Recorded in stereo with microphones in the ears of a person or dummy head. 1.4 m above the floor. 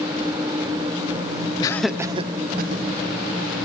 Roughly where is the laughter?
Left.